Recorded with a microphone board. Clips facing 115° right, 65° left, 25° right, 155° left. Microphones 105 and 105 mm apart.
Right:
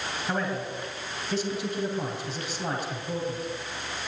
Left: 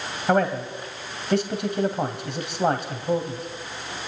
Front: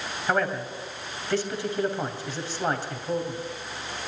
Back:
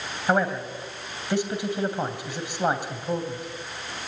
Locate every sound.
0.3 s a man speaking: 85° left, 2.5 m